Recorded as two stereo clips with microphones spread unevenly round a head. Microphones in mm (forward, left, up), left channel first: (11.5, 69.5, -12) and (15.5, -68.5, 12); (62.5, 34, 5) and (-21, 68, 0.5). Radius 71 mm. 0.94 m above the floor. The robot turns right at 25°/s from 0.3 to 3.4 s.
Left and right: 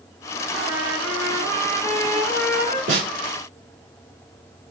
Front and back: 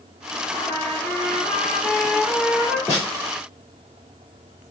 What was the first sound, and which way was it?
A trumpet, 160° right.